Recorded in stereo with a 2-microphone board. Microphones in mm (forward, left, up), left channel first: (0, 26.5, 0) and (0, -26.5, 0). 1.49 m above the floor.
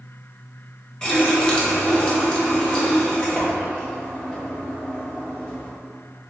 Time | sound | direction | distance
1.0 | a running tap | 15° left (ahead or behind) | 0.9 m